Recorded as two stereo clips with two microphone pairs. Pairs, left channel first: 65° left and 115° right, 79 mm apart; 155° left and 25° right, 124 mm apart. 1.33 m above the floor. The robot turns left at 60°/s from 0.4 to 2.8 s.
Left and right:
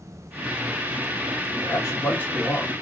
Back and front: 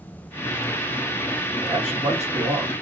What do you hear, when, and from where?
1.6 s a man speaking: 35° left, 1.4 m; by 2.7 s 30° right, 1.4 m